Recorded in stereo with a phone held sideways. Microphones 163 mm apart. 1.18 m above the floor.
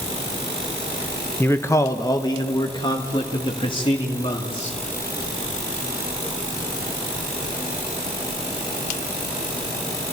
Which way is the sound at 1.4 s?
15° left (ahead or behind).